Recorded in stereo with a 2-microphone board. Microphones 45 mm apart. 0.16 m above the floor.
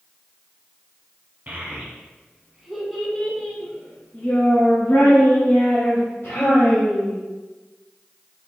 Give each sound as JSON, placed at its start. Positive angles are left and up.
{"t": 1.5, "sound": "a child speaking", "side_deg": -40, "distance_m": 1.2}